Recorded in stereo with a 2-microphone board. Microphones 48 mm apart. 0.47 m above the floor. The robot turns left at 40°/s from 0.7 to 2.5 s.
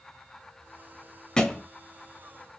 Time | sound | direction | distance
1.4 | a thud | 15° left (ahead or behind) | 0.6 m